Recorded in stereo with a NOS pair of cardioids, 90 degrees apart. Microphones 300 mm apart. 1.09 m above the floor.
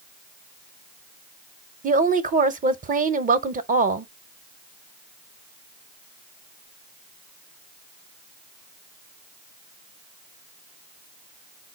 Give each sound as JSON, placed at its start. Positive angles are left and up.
{"t": 1.8, "sound": "a woman speaking", "azimuth_deg": -25, "distance_m": 0.7}